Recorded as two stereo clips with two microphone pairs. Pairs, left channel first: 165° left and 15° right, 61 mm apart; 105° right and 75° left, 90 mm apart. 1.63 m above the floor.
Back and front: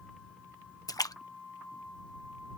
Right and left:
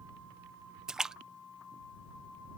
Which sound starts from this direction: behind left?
A splash, at 0.9 s.